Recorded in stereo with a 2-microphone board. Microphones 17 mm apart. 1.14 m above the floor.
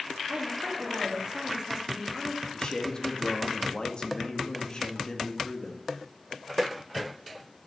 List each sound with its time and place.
0.3 s a woman speaking: 65° right (ahead or behind), 2.5 m; by 2.4 s 25° right (ahead or behind), 2.5 m
2.5 s a man speaking: 50° left (ahead or behind), 1.6 m